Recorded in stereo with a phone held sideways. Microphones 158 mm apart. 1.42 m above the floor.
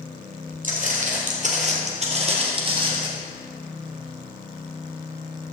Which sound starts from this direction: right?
Footsteps, at 0.6 s.